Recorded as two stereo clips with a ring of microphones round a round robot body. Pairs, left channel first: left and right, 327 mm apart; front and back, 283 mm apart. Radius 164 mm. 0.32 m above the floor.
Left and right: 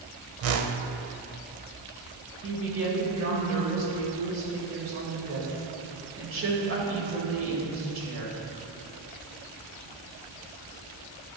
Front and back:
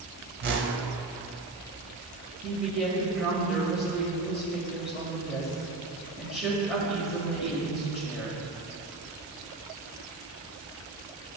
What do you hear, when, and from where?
0.4 s a whoosh: 130° right, 0.6 m
2.4 s a woman speaking: 95° right, 1.6 m